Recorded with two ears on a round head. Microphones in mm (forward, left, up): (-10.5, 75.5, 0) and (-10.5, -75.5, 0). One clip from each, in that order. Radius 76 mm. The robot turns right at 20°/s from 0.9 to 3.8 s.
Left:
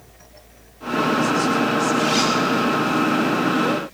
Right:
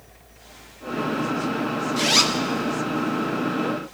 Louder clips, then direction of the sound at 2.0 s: Left 1 dB; 50° right (ahead or behind).